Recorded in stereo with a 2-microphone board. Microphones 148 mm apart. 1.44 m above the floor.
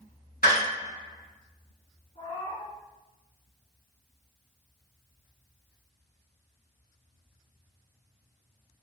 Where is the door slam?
75° left (ahead or behind), 1.4 m.